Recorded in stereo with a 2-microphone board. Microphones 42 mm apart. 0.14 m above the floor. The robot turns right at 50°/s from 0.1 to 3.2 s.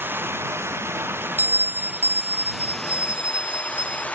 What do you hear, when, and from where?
0.0 s running water: 125° right; by 4.2 s 30° left
1.4 s a bell: 125° right; by 4.0 s 30° right